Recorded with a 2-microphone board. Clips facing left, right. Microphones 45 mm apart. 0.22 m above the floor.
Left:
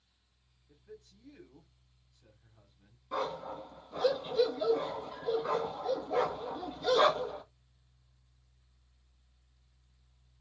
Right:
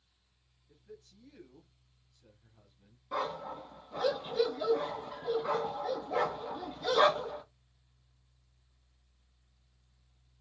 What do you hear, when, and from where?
0.7 s a man speaking: 10° left (ahead or behind), 1.0 m
3.1 s a dog barking: 5° right (ahead or behind), 1.4 m